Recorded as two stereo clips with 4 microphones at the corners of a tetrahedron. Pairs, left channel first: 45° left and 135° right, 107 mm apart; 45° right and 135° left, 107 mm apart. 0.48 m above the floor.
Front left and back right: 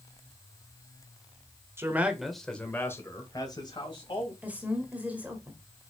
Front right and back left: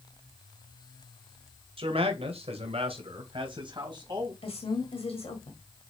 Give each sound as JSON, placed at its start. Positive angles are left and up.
{"t": 1.8, "sound": "a man speaking", "azimuth_deg": 160, "distance_m": 2.0}
{"t": 4.4, "sound": "a woman speaking", "azimuth_deg": -60, "distance_m": 2.0}